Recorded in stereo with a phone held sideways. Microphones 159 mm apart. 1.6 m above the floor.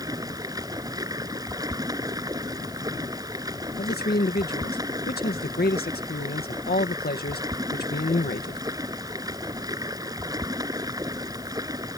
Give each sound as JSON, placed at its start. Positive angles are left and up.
{"t": 0.0, "sound": "running water", "side_deg": -20}
{"t": 3.8, "sound": "a man speaking", "side_deg": 75}